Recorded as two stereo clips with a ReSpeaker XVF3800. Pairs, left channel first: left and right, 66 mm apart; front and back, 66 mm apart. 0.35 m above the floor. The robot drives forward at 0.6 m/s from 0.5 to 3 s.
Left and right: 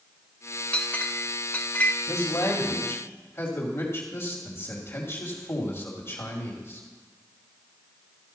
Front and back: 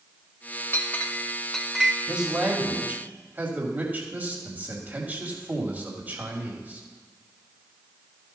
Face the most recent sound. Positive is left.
turn(degrees=125)